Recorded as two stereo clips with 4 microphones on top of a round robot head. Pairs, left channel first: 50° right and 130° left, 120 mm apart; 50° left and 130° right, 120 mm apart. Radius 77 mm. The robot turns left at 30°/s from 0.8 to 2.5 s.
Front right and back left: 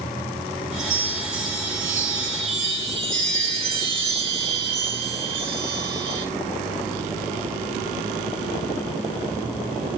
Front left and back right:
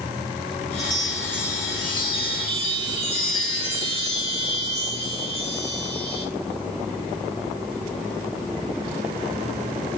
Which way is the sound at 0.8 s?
140° left.